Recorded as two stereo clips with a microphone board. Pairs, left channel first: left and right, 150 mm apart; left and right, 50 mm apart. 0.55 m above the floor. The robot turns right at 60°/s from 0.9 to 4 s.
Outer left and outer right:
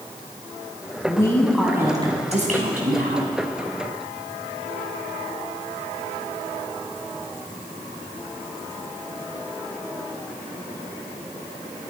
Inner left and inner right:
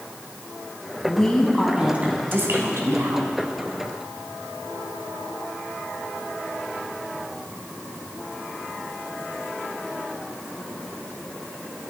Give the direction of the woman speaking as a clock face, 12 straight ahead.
7 o'clock.